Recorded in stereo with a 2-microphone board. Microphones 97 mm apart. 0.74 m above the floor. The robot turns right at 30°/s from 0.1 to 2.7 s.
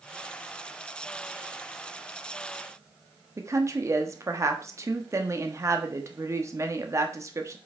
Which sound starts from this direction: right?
A woman speaking, at 3.4 s.